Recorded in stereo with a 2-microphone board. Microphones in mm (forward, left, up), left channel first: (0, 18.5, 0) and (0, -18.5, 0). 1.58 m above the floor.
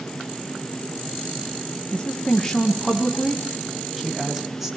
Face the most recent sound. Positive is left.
turn(degrees=-10)  # may be behind; listen again after turning